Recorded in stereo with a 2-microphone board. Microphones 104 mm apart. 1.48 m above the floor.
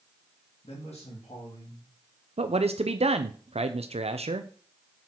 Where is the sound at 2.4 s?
75° right (ahead or behind), 0.5 m.